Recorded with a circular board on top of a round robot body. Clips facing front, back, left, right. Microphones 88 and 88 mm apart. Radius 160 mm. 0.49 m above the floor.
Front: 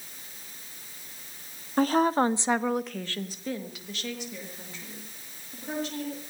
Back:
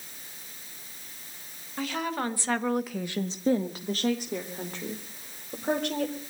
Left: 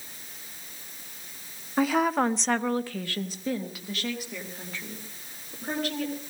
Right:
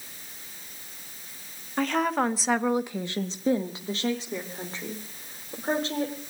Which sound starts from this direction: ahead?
A woman speaking, at 1.8 s.